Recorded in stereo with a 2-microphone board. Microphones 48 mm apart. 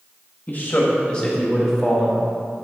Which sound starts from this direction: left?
A man speaking, at 0.5 s.